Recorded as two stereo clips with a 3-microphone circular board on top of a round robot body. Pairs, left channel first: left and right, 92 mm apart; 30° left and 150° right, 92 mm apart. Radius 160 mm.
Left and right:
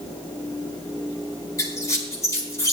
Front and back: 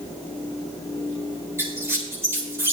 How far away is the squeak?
About 4.5 m.